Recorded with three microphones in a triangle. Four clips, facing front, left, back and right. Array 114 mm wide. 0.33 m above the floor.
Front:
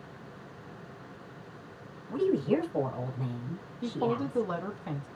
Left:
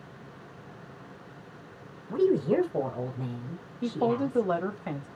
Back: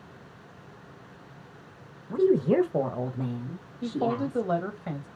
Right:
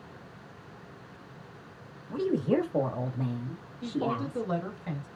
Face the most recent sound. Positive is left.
turn(degrees=125)